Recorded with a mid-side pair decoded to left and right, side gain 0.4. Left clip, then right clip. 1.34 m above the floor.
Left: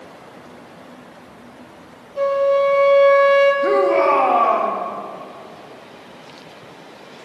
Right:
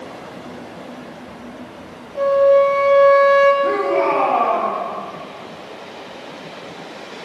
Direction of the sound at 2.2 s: 20° left.